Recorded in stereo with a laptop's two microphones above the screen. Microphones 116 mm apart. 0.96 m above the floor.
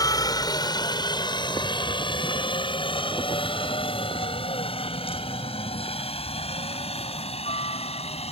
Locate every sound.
0.0 s a helicopter: 30° left (ahead or behind); by 8.3 s 55° left (ahead or behind)